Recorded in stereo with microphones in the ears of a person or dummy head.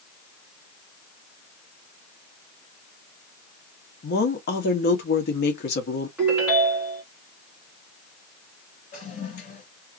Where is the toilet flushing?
50° left (ahead or behind), 2 m.